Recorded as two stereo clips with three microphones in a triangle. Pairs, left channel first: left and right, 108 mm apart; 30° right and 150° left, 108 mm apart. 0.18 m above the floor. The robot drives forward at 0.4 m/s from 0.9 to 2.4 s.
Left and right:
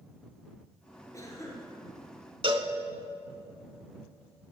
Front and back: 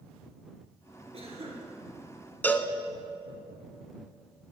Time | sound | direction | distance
1.1 | a cough | 150° left | 3 m
2.4 | a cowbell | 100° right | 0.6 m